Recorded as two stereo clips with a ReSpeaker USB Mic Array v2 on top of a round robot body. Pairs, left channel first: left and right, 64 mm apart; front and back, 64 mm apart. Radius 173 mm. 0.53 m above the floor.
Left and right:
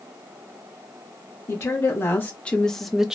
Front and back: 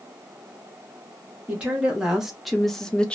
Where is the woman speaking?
110° left, 1.1 m; by 3.1 s 35° right, 0.8 m.